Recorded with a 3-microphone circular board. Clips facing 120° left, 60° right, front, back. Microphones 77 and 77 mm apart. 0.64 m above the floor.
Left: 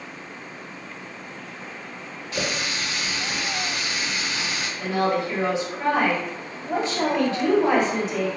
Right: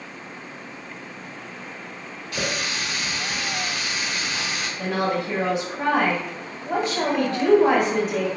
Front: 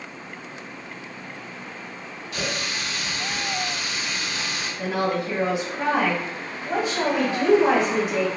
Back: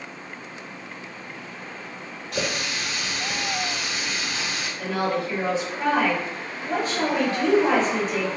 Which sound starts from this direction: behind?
A running tap, at 2.3 s.